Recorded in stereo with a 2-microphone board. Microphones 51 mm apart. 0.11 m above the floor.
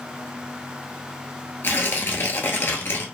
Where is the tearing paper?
50° left (ahead or behind), 1.1 m.